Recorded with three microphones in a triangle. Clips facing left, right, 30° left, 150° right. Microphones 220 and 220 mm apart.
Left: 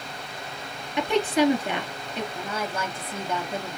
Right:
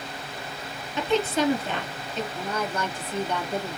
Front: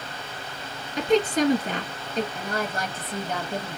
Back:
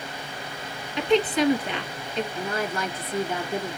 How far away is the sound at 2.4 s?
About 1.7 m.